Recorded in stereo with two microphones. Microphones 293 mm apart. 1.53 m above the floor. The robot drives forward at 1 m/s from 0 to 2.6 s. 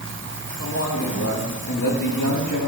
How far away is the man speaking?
About 2 m.